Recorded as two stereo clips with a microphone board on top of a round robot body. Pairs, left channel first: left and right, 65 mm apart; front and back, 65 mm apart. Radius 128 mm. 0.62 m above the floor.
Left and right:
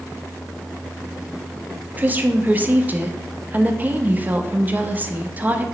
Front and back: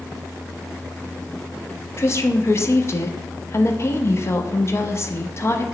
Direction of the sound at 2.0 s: 35° right.